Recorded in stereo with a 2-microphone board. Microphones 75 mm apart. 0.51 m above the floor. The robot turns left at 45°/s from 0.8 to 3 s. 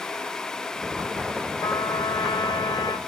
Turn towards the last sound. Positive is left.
turn(degrees=60)